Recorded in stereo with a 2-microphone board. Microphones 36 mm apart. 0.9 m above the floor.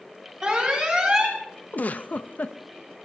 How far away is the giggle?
About 0.6 m.